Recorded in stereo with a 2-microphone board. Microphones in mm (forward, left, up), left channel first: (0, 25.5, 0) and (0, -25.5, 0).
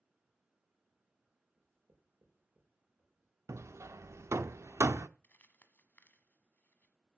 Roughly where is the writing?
Right.